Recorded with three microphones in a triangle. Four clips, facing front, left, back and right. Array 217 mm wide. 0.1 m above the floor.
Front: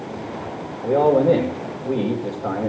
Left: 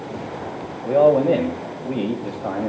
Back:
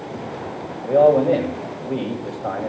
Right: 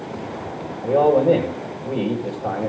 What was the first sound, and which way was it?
A man speaking, 20° right.